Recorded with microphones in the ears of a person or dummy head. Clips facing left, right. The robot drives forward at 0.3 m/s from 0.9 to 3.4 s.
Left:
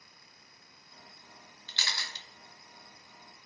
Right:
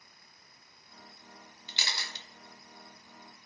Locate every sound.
1.7 s a camera shutter: 15° right (ahead or behind), 0.6 m; by 2.2 s 20° right (ahead or behind), 0.5 m